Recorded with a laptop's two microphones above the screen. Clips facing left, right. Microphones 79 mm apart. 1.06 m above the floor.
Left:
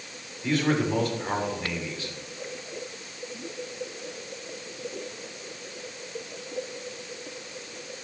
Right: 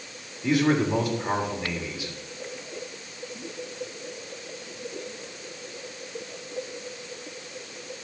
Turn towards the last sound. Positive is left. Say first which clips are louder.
# right 3 dB
turn(degrees=-10)  # may be behind; listen again after turning